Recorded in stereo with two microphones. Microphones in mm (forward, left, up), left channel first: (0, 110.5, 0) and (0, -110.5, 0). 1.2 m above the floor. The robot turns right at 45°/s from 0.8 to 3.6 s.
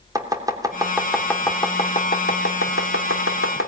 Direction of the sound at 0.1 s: 15° right (ahead or behind).